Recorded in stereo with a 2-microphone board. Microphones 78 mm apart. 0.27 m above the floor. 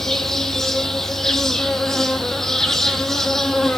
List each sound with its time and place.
0.0 s an insect: 5° left (ahead or behind), 1.4 m